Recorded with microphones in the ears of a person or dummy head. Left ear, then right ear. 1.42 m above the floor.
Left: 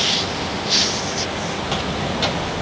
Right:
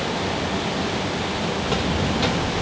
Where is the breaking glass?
I don't hear breaking glass.